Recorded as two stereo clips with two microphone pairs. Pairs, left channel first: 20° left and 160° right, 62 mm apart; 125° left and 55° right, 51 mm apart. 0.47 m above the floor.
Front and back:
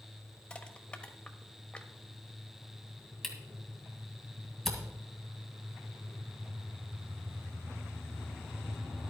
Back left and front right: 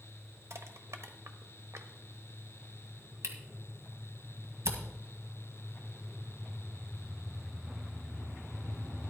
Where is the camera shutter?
65° right, 1.9 m.